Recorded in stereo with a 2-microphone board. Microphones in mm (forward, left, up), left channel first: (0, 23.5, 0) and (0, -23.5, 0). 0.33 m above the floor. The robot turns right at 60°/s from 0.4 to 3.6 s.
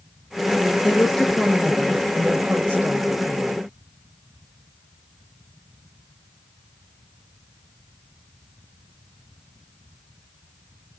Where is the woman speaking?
145° left, 1.7 m; by 3.6 s 50° right, 1.7 m.